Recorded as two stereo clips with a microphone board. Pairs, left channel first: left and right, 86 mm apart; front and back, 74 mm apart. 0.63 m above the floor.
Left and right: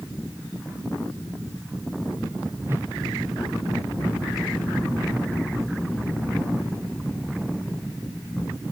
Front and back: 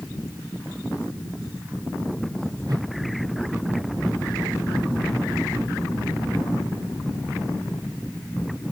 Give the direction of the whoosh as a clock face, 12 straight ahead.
5 o'clock.